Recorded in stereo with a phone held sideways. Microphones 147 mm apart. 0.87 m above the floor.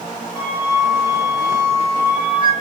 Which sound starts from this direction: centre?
A flute, at 0.3 s.